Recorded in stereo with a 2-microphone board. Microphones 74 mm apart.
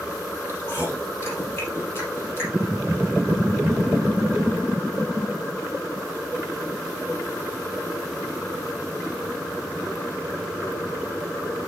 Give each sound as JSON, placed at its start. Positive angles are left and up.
{"t": 0.5, "sound": "chewing", "side_deg": 35, "distance_m": 5.5}